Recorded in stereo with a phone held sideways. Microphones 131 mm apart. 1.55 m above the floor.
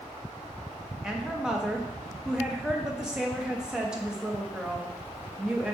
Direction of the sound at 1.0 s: 5° right (ahead or behind).